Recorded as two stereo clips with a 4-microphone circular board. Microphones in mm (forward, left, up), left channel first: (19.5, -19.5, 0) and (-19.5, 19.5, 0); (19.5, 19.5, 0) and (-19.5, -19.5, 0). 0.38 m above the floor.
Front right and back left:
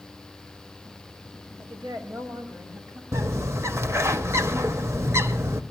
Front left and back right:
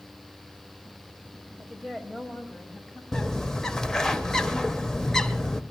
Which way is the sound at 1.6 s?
145° left.